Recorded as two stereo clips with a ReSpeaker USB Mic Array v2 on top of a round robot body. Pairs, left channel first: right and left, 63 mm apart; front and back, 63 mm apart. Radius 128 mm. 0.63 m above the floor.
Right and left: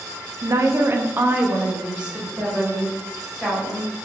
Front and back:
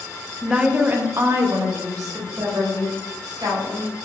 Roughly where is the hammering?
No hammering in this recording.